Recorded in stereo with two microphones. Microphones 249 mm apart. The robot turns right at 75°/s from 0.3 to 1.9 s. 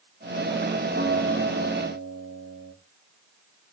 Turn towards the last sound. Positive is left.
turn(degrees=-70)